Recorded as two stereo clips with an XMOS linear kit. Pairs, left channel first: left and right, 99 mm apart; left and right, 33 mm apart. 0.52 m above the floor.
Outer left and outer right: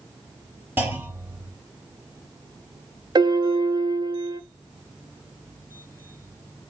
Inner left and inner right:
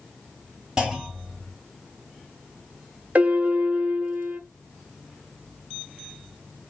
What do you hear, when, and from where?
0.8 s a clunk: 20° right (ahead or behind), 3 m
3.1 s a piano: 45° right (ahead or behind), 0.7 m